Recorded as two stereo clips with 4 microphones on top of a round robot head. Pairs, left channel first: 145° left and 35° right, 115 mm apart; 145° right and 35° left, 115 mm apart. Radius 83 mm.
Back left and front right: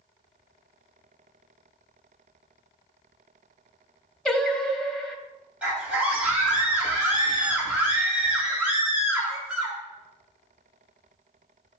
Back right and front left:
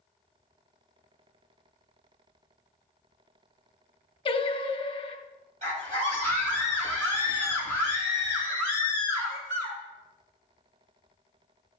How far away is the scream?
About 4 m.